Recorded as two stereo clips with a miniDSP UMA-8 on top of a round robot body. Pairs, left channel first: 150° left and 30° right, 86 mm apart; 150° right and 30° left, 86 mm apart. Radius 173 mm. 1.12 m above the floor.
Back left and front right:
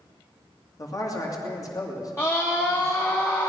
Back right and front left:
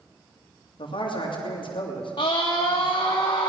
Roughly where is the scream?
Behind right.